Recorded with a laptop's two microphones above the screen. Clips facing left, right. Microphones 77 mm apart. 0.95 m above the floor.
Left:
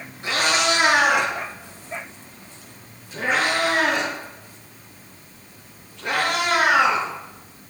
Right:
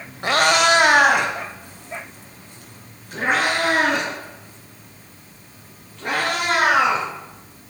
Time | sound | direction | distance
0.2 | a cat meowing | 60° right (ahead or behind) | 1.2 m